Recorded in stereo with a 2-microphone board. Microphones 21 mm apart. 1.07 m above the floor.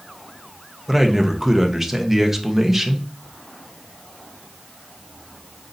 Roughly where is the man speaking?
Centre.